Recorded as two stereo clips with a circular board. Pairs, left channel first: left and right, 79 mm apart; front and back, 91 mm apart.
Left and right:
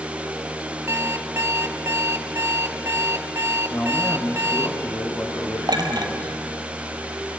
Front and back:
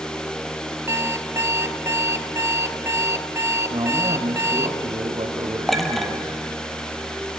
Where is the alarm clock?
130° right, 1.3 m.